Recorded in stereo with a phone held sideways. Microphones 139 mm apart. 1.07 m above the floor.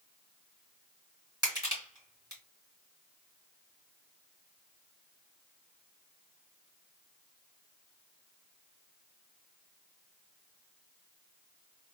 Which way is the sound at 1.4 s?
30° right (ahead or behind).